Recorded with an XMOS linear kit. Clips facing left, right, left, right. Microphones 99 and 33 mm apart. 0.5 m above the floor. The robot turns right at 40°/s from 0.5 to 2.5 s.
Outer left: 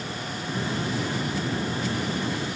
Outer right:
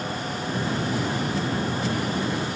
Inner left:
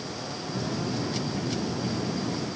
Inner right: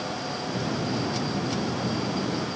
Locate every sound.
Only background noise.